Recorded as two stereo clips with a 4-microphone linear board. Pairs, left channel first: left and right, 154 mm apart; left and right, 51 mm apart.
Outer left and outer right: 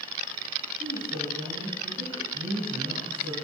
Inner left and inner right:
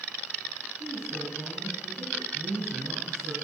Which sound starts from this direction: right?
A woman speaking, at 0.8 s.